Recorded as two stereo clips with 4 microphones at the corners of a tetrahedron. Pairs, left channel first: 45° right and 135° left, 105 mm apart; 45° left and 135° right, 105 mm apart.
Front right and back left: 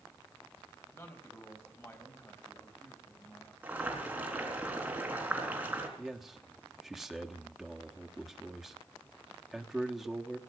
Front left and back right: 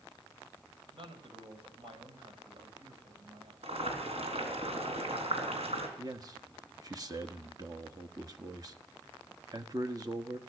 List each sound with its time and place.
0.9 s a man speaking: 105° right, 3.5 m
3.6 s boiling: 150° right, 3.5 m
6.0 s a man speaking: 140° right, 1.1 m